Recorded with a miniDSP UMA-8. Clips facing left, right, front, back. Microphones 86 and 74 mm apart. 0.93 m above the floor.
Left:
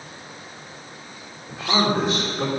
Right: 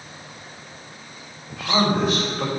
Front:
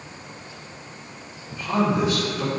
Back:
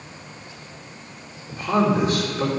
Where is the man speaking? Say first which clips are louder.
Even, back 2 dB; 140° left, 2.5 m.